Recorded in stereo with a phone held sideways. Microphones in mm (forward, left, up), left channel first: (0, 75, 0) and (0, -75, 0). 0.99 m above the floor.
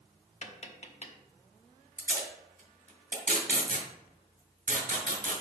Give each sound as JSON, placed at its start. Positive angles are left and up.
{"t": 0.4, "sound": "tapping", "side_deg": 45, "distance_m": 0.8}
{"t": 2.0, "sound": "tape being pulled", "side_deg": -75, "distance_m": 2.0}